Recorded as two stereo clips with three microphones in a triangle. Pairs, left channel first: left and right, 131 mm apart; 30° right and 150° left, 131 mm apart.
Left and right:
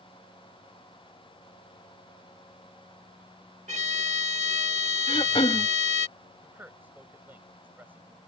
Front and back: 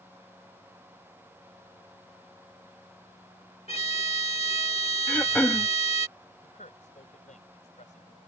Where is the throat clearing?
45° left.